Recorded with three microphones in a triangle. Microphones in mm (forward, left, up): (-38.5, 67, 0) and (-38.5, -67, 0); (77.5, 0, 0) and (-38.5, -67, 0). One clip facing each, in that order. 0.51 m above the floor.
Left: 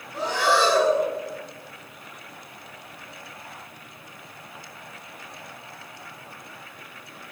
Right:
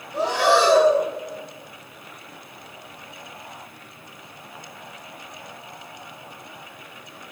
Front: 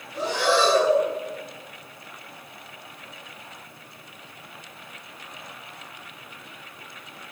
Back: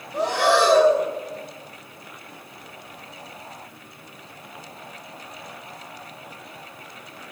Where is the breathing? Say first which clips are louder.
Right 4 dB, back 3 dB; 115° right, 1.6 m.